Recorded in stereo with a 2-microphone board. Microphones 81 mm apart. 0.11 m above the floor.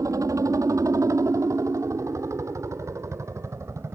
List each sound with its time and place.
0.0 s a helicopter: 45° right (ahead or behind); by 4.0 s 35° right (ahead or behind)